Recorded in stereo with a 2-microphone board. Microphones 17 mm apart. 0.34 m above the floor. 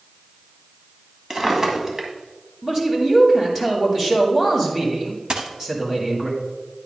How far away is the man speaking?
About 2.5 m.